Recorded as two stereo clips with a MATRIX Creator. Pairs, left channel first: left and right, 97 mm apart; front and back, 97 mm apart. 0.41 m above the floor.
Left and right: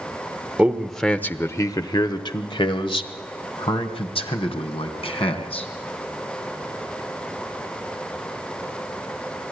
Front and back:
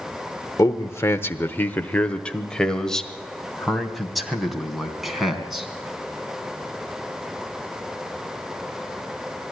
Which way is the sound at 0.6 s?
20° right.